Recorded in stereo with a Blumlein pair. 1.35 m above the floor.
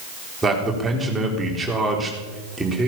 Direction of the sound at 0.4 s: 10° right.